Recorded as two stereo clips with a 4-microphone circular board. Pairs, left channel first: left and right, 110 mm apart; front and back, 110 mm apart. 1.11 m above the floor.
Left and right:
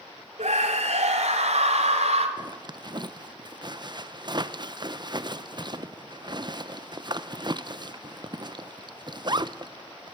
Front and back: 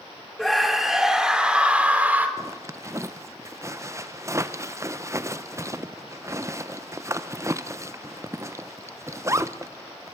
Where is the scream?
90° right, 3.5 m; by 2.3 s 105° right, 3.5 m.